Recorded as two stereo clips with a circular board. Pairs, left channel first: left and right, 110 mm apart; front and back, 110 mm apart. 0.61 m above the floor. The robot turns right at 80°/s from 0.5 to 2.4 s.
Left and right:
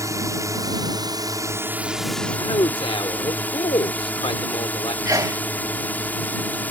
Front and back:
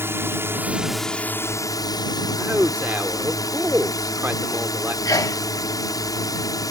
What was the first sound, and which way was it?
A drone, 125° right.